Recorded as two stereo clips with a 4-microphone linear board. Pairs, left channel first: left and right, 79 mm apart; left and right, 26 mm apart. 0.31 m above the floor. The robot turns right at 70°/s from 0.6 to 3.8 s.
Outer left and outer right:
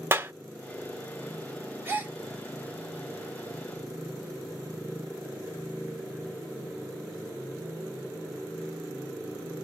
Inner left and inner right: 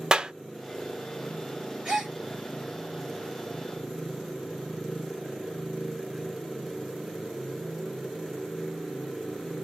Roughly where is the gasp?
Right.